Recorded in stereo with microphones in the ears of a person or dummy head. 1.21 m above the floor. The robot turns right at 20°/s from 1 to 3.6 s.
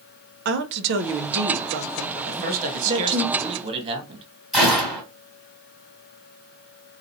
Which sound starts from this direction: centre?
A gunshot, at 4.5 s.